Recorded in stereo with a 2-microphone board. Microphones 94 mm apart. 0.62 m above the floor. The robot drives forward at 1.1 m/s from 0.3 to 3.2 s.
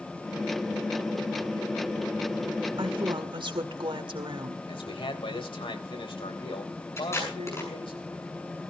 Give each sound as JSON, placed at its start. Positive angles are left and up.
{"t": 2.8, "sound": "a woman speaking", "side_deg": -65, "distance_m": 1.8}
{"t": 4.7, "sound": "a man speaking", "side_deg": 75, "distance_m": 3.5}
{"t": 7.0, "sound": "tape being pulled", "side_deg": 30, "distance_m": 7.0}